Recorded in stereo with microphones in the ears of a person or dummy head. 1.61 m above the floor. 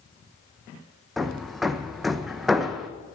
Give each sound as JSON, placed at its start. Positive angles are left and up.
{"t": 1.2, "sound": "hammering", "side_deg": 0, "distance_m": 0.8}